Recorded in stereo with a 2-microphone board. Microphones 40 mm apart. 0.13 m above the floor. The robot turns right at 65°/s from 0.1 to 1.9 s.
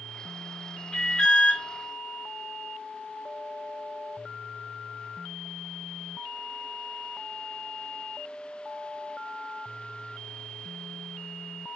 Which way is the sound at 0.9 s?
15° left (ahead or behind).